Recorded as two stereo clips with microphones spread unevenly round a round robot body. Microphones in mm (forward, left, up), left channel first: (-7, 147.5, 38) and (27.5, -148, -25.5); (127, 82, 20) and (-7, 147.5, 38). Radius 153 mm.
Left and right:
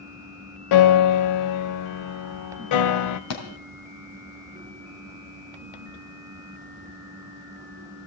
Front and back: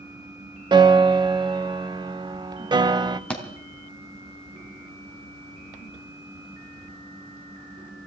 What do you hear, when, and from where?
0.7 s a piano: 100° left, 0.8 m
3.3 s a thud: 60° left, 3.5 m